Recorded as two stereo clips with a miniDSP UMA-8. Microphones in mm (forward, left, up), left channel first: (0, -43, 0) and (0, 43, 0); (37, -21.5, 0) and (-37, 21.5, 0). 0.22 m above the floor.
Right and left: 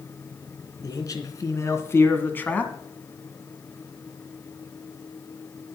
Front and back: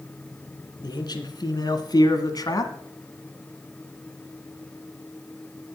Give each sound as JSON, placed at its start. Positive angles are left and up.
{"t": 0.8, "sound": "a man speaking", "azimuth_deg": -55, "distance_m": 2.5}